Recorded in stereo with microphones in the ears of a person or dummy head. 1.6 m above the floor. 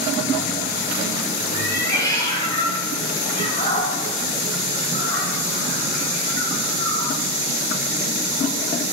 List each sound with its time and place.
1.5 s a cat meowing: 10° left (ahead or behind), 2.5 m; by 7.2 s 70° left (ahead or behind), 3.5 m